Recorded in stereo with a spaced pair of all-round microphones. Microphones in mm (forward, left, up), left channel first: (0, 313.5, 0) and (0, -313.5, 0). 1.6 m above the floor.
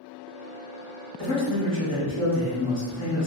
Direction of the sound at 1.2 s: 25° left (ahead or behind).